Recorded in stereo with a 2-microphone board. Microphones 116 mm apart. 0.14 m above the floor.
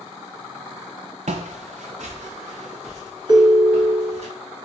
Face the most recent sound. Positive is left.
turn(degrees=-40)  # may be behind; listen again after turning